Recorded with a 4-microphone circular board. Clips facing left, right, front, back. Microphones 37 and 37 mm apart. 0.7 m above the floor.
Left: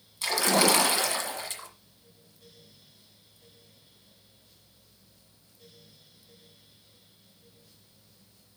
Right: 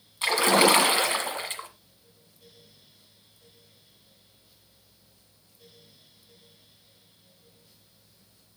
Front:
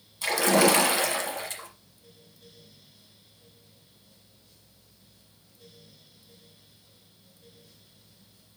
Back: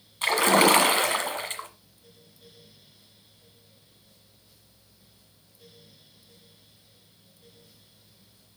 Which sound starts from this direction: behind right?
A splash, at 0.2 s.